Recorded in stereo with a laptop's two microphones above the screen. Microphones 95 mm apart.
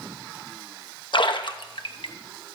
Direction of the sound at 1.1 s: 60° left (ahead or behind).